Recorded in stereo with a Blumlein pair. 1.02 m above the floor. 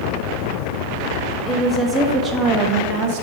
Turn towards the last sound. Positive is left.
turn(degrees=-50)